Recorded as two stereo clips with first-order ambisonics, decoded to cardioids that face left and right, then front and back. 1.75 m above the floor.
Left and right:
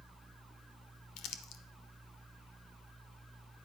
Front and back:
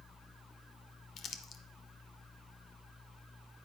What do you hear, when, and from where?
1.2 s crumpling: 55° left, 0.8 m